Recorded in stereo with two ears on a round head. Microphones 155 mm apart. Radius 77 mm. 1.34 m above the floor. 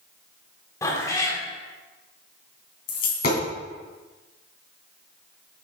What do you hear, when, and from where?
0.8 s a cat meowing: 20° left (ahead or behind), 1.1 m
2.9 s a dropped coin: 55° left (ahead or behind), 2.5 m